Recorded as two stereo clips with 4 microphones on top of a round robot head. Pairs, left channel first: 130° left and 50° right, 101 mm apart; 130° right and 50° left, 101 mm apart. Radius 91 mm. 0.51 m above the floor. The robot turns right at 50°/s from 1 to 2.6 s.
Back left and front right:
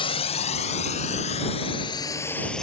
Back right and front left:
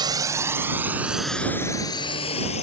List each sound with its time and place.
0.0 s a drone: 95° left; by 2.6 s 145° right